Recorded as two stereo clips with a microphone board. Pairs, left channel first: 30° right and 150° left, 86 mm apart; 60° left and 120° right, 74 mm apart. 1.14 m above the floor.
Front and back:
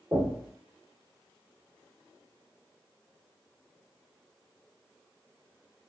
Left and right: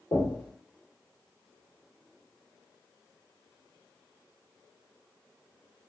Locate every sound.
0.1 s knocking: 105° left, 1.9 m